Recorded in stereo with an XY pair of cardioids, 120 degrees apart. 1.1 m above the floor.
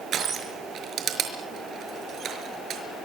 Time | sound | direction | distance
0.1 | crushing | 50° right | 5 m